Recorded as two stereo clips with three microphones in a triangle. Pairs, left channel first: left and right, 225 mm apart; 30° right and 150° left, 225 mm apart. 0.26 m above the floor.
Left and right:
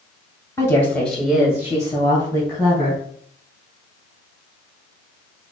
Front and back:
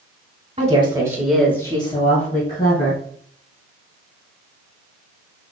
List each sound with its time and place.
0.6 s a woman speaking: 155° left, 1.7 m; by 3.0 s 30° right, 2.5 m